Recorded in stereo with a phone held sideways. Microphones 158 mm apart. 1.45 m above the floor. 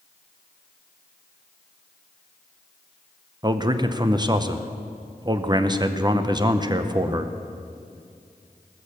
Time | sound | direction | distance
3.4 | a man speaking | 25° right (ahead or behind) | 0.6 m